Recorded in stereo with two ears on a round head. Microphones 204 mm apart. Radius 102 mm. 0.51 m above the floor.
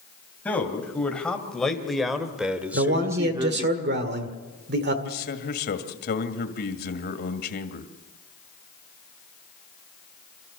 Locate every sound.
0.5 s a man speaking: 5° left (ahead or behind), 3 m; by 3.7 s 25° right (ahead or behind), 1.0 m
2.7 s a man speaking: 50° right (ahead or behind), 1.8 m
5.0 s a man speaking: 45° left (ahead or behind), 2 m